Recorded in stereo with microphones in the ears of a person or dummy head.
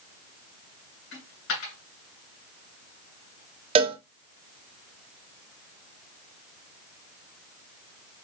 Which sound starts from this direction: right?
A cowbell, at 3.8 s.